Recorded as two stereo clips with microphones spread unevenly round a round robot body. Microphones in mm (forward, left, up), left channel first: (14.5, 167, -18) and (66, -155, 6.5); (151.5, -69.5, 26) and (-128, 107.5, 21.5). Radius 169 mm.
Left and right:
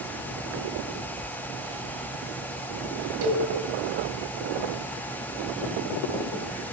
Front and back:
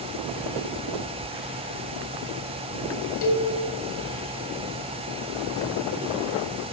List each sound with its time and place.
3.2 s a cowbell: 80° right, 1.8 m